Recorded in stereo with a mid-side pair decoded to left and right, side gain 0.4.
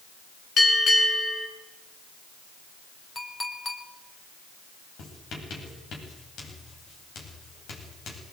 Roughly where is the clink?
Ahead left.